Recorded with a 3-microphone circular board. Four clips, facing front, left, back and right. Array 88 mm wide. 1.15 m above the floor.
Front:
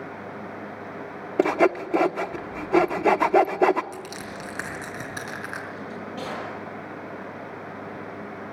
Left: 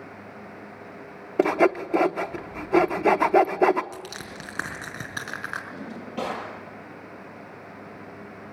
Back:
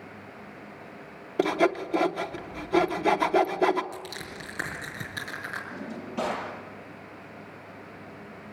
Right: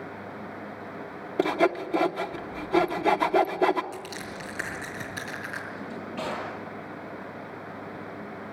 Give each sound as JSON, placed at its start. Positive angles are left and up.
{"t": 1.4, "sound": "sawing", "azimuth_deg": 40, "distance_m": 0.7}
{"t": 3.9, "sound": "crushing", "azimuth_deg": 80, "distance_m": 5.0}
{"t": 5.7, "sound": "a drawer", "azimuth_deg": 105, "distance_m": 9.0}